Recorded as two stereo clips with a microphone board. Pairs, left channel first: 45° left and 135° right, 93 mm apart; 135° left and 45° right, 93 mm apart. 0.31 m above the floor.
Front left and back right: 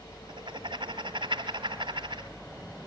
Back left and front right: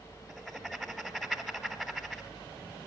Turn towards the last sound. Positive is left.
turn(degrees=-140)